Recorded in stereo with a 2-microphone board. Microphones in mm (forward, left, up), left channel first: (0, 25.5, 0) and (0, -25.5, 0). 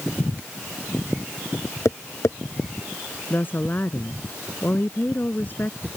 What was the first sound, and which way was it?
Tapping, 75° left (ahead or behind).